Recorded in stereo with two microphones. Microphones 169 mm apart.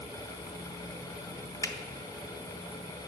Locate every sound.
1.6 s a finger snap: 20° left (ahead or behind), 0.5 m